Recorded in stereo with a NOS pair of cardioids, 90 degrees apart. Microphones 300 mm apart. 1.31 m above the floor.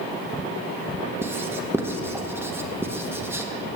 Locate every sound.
1.2 s writing: 10° right, 1.0 m